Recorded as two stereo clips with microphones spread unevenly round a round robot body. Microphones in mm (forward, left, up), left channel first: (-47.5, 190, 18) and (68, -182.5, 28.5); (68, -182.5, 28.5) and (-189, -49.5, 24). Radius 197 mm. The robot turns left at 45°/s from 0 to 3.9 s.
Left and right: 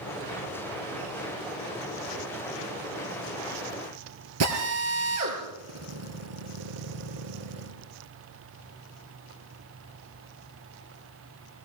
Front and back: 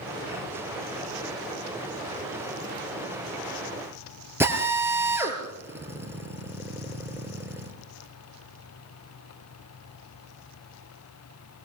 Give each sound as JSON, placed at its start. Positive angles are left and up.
{"t": 4.4, "sound": "a drill", "azimuth_deg": -125, "distance_m": 4.0}